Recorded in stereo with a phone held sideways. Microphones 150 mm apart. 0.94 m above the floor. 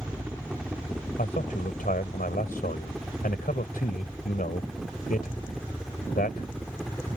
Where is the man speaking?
75° left (ahead or behind).